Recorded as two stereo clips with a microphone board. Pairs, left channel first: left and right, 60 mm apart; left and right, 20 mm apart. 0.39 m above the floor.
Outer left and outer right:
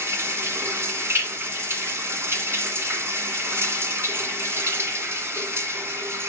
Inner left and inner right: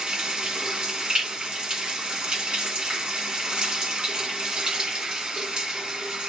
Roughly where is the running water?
Right.